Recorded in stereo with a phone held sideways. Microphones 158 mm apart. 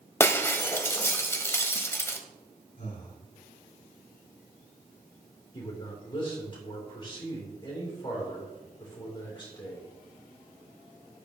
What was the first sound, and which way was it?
Breaking glass, 15° left (ahead or behind).